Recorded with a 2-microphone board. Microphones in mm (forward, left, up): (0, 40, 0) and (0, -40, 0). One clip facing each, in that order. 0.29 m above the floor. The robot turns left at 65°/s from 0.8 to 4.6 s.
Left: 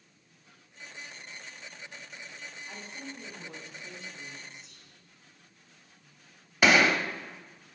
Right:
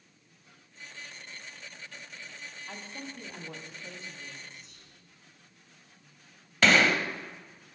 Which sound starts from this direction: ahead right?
A woman speaking, at 2.7 s.